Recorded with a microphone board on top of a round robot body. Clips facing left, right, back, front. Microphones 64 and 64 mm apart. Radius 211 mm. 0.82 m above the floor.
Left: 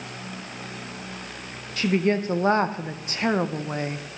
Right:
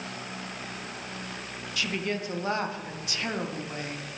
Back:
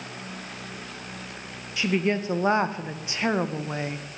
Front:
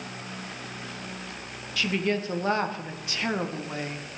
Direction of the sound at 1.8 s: 120° left.